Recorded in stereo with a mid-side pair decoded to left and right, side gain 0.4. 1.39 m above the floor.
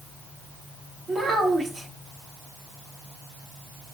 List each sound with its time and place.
1.1 s a child speaking: 50° right, 3 m